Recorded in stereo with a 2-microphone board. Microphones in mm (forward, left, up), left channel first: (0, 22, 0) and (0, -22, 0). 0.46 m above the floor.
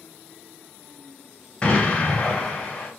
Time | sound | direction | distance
1.6 | an explosion | 25° left (ahead or behind) | 1.8 m